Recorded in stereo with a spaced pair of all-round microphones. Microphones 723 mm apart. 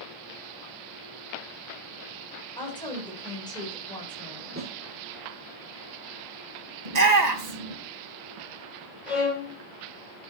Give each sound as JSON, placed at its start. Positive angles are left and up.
{"t": 2.6, "sound": "a woman speaking", "side_deg": 5, "distance_m": 4.0}
{"t": 4.6, "sound": "a snare drum", "side_deg": -15, "distance_m": 2.5}
{"t": 6.8, "sound": "a shout", "side_deg": -65, "distance_m": 1.8}
{"t": 9.1, "sound": "a violin", "side_deg": 70, "distance_m": 3.5}